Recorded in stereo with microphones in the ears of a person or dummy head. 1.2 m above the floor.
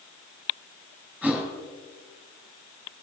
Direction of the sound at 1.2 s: 10° left (ahead or behind).